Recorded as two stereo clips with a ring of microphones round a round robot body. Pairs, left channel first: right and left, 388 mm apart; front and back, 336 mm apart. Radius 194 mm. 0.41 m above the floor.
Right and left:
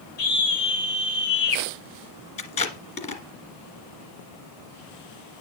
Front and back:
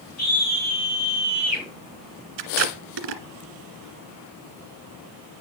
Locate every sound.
0.2 s a scream: 50° right, 6 m
2.4 s tape being pulled: 165° right, 1.8 m